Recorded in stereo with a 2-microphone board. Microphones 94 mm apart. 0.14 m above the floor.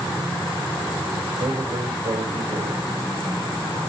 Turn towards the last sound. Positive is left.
turn(degrees=-70)  # may be behind; listen again after turning